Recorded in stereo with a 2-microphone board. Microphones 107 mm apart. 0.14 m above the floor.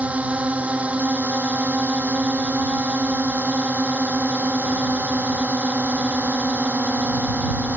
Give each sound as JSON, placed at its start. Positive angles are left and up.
{"t": 0.0, "sound": "a drone", "side_deg": -15}